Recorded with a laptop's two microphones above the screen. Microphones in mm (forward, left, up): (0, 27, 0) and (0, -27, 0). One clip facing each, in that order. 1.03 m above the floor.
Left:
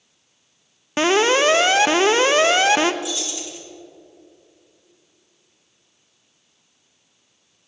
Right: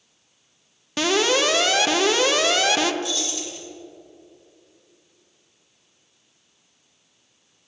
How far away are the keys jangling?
About 1.9 m.